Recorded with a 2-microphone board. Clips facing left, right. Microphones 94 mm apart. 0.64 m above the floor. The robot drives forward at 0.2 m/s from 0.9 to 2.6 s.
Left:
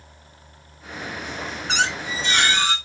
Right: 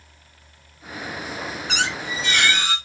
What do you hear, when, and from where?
1.7 s a squeak: 30° left (ahead or behind), 1.2 m; by 2.8 s 25° left (ahead or behind), 1.4 m